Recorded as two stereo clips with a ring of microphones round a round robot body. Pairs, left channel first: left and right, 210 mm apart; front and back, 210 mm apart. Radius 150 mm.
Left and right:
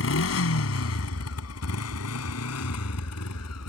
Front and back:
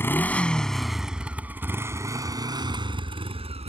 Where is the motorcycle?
80° left; by 3.7 s 120° left.